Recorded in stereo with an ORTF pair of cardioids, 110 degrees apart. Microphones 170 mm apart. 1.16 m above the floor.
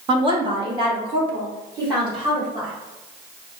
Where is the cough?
No cough in this recording.